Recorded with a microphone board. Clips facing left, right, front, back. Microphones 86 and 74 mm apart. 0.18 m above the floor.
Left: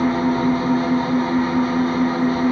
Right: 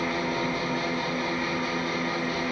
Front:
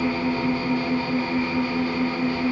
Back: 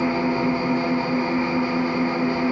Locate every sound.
0.0 s an engine running: 120° left, 1.0 m